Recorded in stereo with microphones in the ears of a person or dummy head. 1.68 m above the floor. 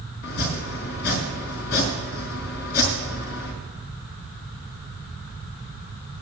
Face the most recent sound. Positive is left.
turn(degrees=60)  # may be behind; listen again after turning